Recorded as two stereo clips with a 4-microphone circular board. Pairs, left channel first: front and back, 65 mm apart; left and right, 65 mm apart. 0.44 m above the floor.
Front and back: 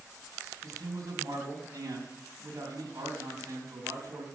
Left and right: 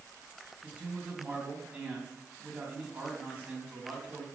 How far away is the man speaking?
About 4 m.